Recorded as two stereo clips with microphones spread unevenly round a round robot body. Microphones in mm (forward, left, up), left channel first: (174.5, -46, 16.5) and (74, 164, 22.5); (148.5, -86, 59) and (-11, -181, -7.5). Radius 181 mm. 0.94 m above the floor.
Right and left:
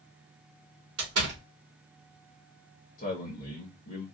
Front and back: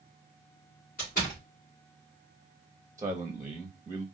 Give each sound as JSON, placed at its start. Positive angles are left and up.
{"t": 1.0, "sound": "a door slam", "azimuth_deg": 100, "distance_m": 1.8}
{"t": 3.0, "sound": "a man speaking", "azimuth_deg": -105, "distance_m": 1.0}